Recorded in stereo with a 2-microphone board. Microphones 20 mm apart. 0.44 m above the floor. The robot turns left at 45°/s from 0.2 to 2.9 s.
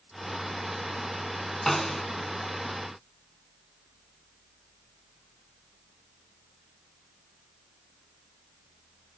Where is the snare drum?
Centre (ahead or behind), 0.5 m; by 2.0 s 15° left (ahead or behind), 0.5 m.